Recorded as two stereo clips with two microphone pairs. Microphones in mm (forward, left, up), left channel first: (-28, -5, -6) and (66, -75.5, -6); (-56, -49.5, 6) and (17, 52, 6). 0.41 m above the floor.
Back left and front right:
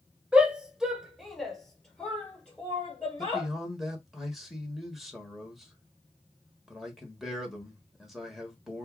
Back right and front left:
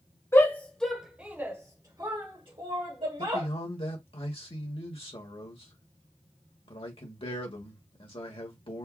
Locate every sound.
0.3 s a shout: 95° right, 1.0 m; by 3.5 s 65° left, 1.7 m
3.2 s a man speaking: 120° right, 1.4 m